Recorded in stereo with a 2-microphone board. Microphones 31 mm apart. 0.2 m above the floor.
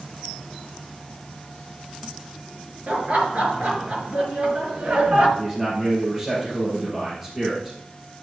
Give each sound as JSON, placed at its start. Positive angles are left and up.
{"t": 2.9, "sound": "laughter", "side_deg": -40, "distance_m": 4.5}
{"t": 5.4, "sound": "a man speaking", "side_deg": -15, "distance_m": 3.5}